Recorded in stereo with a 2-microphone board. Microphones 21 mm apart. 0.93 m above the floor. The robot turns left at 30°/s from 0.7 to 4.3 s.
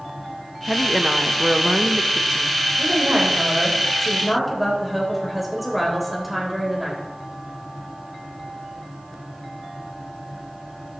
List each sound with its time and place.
0.7 s a woman speaking: 10° right, 0.8 m; by 2.5 s 65° right, 0.8 m
2.8 s a woman speaking: 130° right, 3.5 m; by 7.0 s 175° right, 3.5 m